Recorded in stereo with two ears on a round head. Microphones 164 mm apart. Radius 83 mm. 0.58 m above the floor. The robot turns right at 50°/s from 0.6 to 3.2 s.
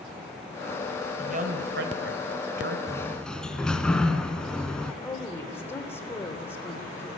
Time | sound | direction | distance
1.2 | a woman speaking | 140° right | 2.5 m
2.9 | a sliding door | 20° left (ahead or behind) | 1.4 m
5.0 | a woman speaking | 15° left (ahead or behind) | 2.5 m